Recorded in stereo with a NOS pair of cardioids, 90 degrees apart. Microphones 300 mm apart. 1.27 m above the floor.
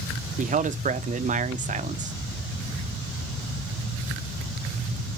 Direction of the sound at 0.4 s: 25° right.